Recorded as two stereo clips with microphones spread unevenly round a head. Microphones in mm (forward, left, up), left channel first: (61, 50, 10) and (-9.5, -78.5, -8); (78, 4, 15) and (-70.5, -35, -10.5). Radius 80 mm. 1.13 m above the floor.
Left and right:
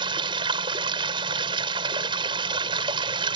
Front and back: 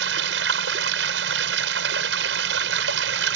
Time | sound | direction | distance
0.0 | running water | straight behind | ?